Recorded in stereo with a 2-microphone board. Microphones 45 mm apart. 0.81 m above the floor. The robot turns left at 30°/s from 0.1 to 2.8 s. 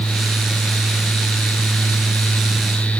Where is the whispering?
No whispering in this recording.